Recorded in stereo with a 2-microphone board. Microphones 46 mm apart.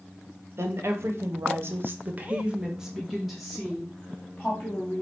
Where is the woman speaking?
65° right (ahead or behind), 1.7 m; by 5.0 s 15° left (ahead or behind), 3 m.